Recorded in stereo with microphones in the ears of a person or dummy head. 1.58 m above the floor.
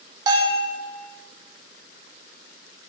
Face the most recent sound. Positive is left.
turn(degrees=-25)  # may be behind; listen again after turning